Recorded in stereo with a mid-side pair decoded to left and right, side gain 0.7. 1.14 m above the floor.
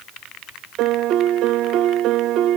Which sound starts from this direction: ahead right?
A piano, at 0.8 s.